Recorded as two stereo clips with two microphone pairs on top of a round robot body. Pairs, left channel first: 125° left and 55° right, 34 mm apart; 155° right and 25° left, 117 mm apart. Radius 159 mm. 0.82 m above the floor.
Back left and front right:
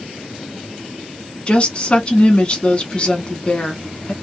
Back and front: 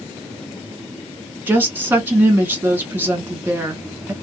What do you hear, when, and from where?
1.5 s a woman speaking: 90° left, 1.3 m